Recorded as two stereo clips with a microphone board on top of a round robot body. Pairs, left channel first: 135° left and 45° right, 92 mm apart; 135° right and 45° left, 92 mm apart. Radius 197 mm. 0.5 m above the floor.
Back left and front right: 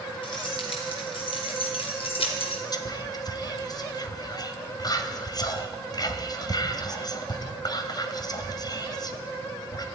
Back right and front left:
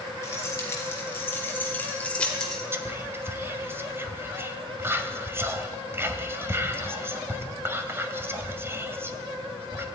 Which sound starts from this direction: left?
Whispering, at 2.7 s.